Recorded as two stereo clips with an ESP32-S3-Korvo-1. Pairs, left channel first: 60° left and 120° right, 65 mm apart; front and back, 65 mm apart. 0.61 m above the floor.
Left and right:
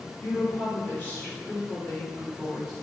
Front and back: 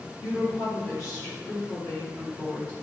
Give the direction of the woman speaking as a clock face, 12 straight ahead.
11 o'clock.